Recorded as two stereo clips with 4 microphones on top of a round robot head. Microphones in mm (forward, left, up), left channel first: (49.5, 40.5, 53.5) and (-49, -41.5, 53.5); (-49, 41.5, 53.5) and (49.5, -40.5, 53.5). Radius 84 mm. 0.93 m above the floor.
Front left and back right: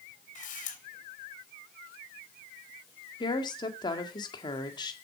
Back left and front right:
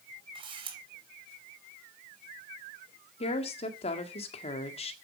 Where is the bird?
I don't hear a bird.